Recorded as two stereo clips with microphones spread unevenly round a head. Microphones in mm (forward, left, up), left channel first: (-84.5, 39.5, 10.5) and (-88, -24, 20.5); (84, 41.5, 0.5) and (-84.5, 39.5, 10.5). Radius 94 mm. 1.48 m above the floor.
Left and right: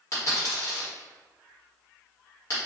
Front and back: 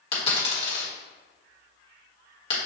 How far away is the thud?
No thud in this recording.